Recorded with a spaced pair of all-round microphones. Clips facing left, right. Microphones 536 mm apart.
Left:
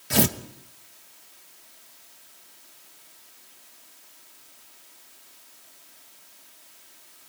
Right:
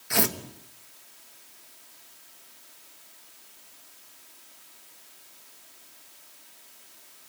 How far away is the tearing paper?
About 1.0 m.